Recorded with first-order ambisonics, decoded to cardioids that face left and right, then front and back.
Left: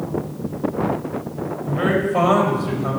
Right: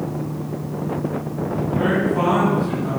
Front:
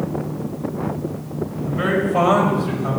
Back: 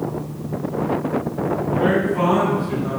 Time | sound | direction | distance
1.6 | a man speaking | 40° left | 4 m